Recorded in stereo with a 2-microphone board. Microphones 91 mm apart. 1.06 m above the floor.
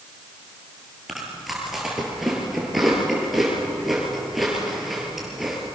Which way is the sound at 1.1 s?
5° right (ahead or behind).